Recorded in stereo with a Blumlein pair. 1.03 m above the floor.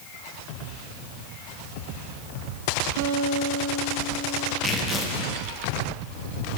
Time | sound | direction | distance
3.0 | a guitar | 55° right | 0.7 m
4.6 | tearing paper | 15° left | 0.9 m